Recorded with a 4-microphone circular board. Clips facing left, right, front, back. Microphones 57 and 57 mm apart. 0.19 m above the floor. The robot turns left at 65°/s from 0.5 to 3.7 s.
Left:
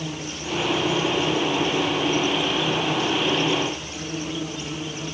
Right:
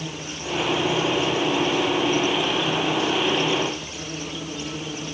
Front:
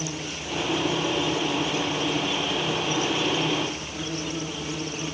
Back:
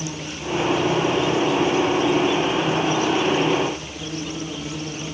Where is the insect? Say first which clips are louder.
Left 1 dB, back 3 dB; 135° right, 1.7 m; by 5.2 s 15° left, 1.7 m.